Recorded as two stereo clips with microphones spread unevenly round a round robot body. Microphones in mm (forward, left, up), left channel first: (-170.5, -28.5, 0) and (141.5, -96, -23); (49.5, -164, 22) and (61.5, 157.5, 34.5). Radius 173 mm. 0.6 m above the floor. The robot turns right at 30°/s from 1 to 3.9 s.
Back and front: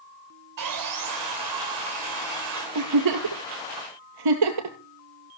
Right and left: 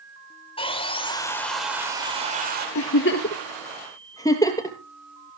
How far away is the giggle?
About 2.5 m.